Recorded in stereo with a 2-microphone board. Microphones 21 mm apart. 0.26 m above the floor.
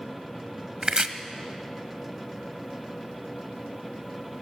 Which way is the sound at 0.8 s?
35° right (ahead or behind).